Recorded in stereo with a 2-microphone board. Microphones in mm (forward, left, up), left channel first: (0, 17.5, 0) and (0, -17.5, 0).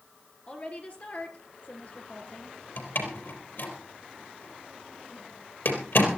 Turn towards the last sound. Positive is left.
turn(degrees=70)  # may be behind; listen again after turning